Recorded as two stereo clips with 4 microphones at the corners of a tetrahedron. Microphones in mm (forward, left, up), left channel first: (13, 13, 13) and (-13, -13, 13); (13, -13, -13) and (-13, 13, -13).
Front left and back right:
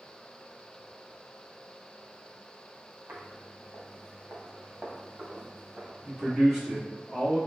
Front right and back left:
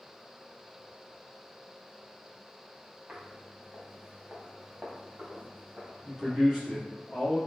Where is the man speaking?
165° left, 1.8 m.